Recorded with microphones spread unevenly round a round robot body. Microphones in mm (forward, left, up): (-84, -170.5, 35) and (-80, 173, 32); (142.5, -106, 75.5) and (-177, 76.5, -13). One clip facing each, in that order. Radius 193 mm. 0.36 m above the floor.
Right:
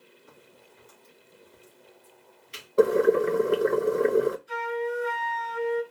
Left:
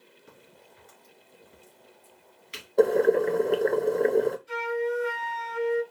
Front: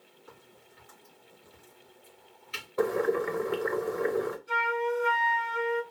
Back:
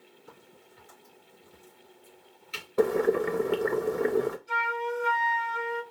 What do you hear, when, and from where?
0.3 s a crack: 100° left, 2.5 m
2.8 s boiling: 170° right, 0.5 m
4.5 s a flute: 70° left, 3 m